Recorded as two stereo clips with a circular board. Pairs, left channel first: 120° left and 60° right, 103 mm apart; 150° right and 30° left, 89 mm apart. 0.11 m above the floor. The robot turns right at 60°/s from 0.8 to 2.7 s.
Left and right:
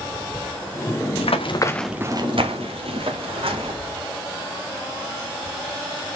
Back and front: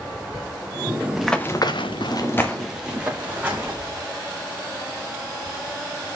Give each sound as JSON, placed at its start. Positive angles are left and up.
{"t": 1.2, "sound": "running footsteps", "azimuth_deg": 110, "distance_m": 1.2}